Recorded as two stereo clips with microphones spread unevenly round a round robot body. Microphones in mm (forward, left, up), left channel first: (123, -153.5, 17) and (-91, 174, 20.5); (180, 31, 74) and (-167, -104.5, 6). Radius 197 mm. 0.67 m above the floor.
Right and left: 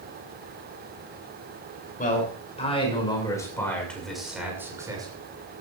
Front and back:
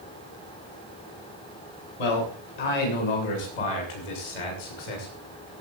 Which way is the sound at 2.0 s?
15° left.